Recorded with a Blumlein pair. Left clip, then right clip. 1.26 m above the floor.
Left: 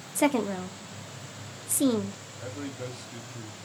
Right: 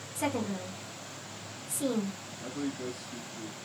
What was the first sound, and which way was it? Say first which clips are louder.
A woman speaking: left 7 dB; 60° left.